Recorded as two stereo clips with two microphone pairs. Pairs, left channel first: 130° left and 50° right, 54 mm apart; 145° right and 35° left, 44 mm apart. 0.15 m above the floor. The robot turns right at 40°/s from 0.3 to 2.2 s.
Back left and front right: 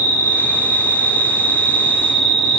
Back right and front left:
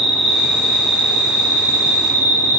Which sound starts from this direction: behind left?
An insect, at 0.0 s.